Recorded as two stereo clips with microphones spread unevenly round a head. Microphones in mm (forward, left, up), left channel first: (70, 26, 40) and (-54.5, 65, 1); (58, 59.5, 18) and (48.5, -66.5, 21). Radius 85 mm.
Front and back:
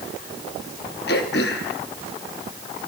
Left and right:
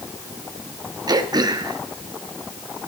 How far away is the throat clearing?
About 1.8 m.